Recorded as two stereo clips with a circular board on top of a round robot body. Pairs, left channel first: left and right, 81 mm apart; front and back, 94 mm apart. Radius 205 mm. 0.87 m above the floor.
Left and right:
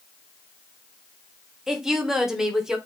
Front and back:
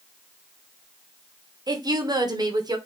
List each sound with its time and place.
1.7 s a woman speaking: 175° right, 0.9 m